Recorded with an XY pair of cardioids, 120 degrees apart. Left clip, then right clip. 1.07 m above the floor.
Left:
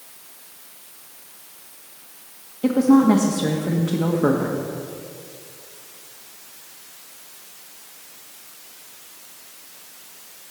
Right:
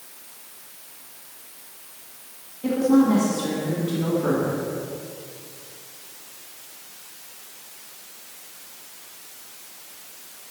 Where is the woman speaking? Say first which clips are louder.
Left 3 dB; 60° left, 1.3 m.